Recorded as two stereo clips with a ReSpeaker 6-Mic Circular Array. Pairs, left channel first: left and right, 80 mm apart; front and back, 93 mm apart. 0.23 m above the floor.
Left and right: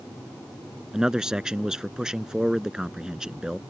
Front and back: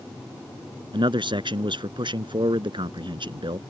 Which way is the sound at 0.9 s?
170° right.